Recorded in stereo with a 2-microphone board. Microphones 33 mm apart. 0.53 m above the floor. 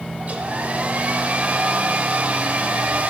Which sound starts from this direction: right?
A hair dryer, at 0.2 s.